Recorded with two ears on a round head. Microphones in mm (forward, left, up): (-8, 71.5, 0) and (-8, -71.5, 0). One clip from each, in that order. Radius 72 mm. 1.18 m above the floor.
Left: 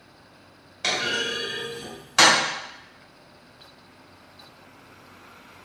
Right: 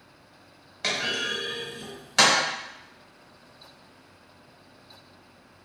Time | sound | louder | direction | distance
0.8 | a clunk | left 2 dB | 10° right (ahead or behind) | 1.3 m